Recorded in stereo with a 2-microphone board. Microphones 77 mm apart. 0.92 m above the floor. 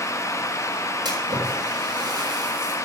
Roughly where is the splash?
Right.